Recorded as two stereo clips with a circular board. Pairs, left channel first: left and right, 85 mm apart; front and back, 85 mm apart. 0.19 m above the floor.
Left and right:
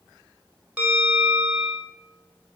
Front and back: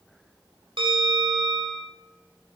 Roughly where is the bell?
Behind.